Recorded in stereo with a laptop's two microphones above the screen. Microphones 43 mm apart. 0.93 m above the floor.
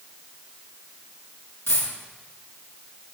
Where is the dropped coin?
75° left (ahead or behind), 5 m.